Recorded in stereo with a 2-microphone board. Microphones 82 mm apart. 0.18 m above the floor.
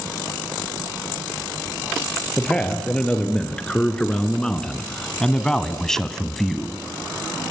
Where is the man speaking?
10° left (ahead or behind), 4 m; by 6.8 s centre (ahead or behind), 1.6 m.